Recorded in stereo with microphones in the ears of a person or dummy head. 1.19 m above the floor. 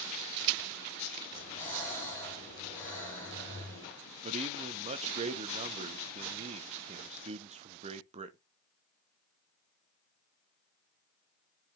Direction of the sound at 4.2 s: 30° right (ahead or behind).